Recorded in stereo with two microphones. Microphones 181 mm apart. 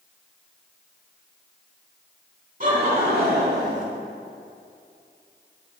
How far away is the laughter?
About 3 m.